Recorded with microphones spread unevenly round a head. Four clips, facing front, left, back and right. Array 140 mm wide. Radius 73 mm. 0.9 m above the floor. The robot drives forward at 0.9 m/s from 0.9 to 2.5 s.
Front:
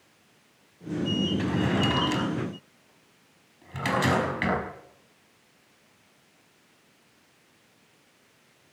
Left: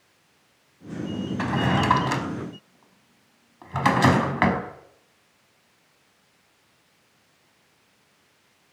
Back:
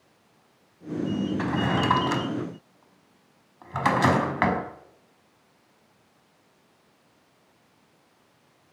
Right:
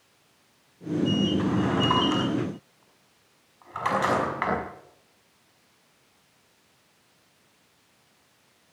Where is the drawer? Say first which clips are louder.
Left 1 dB, back 2 dB; 95° left, 4.5 m; by 4.6 s 110° left, 4.5 m.